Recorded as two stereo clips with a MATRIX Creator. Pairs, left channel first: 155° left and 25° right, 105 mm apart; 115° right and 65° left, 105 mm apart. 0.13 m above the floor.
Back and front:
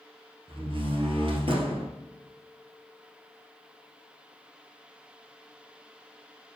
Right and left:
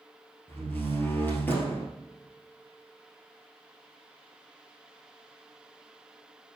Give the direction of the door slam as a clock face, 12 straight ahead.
1 o'clock.